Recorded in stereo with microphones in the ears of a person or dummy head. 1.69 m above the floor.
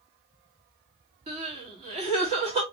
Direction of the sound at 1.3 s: 25° right (ahead or behind).